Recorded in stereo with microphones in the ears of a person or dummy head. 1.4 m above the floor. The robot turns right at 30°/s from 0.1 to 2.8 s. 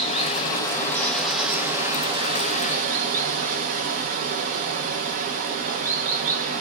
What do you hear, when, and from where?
0.0 s running water: 145° left, 0.8 m; by 6.6 s 130° right, 0.8 m